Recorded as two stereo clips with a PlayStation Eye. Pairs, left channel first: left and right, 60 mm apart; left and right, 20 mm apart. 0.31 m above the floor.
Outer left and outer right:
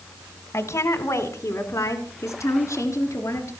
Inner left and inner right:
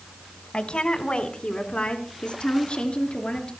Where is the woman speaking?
60° left (ahead or behind), 1.9 m.